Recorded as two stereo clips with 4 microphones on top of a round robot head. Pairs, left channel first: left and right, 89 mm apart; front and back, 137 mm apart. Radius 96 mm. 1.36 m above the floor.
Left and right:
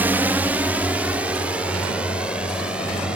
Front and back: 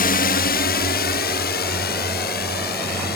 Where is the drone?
15° right; by 3.2 s 5° right.